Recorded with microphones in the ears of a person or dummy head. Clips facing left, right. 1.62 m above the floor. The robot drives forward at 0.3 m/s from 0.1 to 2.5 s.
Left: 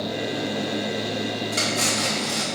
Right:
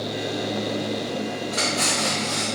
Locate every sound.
1.5 s cutlery clinking: 35° left (ahead or behind), 1.3 m; by 2.5 s 30° left (ahead or behind), 1.5 m